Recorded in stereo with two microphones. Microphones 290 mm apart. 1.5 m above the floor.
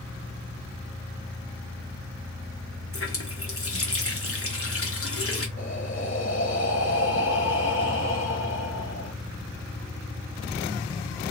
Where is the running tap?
50° left (ahead or behind), 1.0 m.